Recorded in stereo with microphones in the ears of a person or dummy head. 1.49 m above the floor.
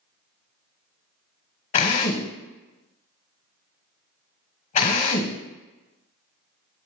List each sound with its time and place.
1.7 s a drill: 45° left (ahead or behind), 0.9 m